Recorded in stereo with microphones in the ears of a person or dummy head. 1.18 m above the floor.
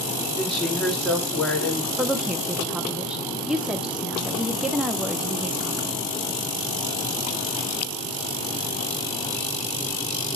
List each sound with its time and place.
0.4 s a woman speaking: centre (ahead or behind), 2.5 m
2.0 s a woman speaking: 5° right (ahead or behind), 0.6 m